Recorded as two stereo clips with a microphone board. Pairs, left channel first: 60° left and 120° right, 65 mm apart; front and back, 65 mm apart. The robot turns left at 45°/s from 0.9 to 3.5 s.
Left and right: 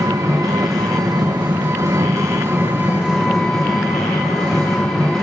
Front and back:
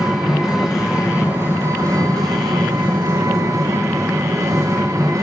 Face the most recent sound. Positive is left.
turn(degrees=140)